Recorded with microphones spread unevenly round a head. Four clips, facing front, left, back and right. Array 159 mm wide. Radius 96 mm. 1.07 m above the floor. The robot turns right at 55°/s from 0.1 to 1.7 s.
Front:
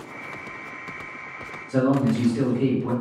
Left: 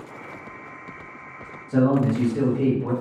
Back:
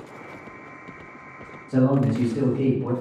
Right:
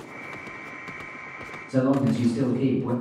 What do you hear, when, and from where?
1.7 s a man speaking: 160° left, 1.1 m